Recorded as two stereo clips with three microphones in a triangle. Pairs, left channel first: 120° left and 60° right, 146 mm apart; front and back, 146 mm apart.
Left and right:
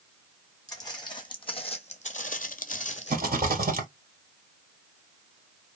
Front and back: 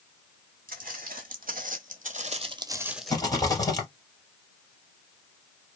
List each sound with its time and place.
0.7 s footsteps: 175° right, 1.2 m; by 3.1 s 85° left, 0.5 m
3.1 s a rattle: 65° right, 1.4 m